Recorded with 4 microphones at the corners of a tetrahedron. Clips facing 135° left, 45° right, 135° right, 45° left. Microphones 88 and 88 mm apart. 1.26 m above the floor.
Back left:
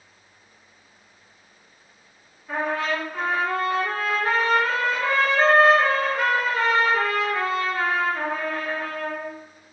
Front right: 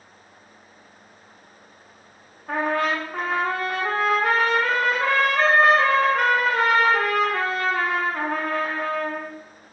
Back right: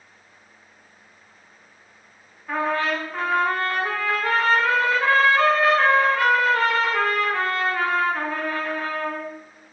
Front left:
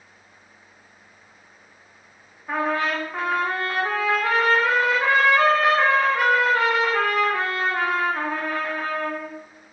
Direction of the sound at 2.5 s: 25° right.